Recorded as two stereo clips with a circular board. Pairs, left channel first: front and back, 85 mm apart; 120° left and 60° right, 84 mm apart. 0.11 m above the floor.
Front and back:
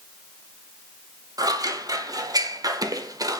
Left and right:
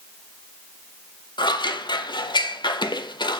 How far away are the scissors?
About 0.5 m.